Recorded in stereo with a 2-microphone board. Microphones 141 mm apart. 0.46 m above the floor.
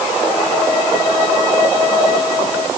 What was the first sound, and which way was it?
Only background noise.